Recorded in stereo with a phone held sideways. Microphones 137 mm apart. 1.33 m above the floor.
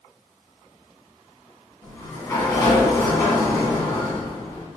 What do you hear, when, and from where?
1.8 s a sliding door: 15° left (ahead or behind), 1.7 m